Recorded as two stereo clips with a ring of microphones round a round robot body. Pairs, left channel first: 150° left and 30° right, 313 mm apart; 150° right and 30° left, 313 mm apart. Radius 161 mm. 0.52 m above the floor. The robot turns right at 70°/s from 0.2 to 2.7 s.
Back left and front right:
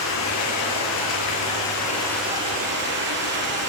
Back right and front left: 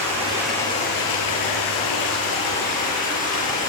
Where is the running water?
100° left, 6 m; by 3.7 s 85° right, 6 m.